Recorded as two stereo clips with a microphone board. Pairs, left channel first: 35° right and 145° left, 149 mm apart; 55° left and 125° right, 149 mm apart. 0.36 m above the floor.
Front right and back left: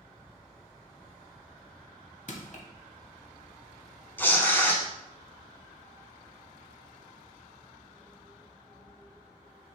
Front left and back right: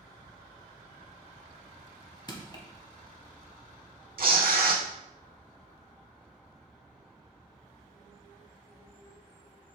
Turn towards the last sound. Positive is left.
turn(degrees=-110)